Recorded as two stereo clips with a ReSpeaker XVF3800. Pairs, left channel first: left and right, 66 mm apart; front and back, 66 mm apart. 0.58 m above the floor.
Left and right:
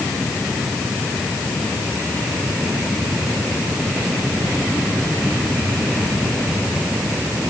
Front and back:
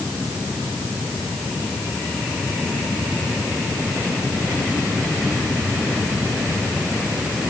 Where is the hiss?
I don't hear a hiss.